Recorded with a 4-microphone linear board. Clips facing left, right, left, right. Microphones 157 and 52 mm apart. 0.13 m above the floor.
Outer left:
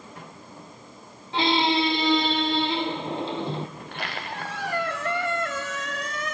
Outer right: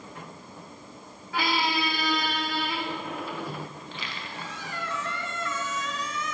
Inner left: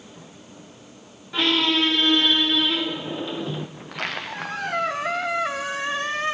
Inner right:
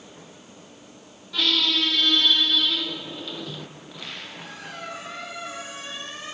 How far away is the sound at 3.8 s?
About 2 m.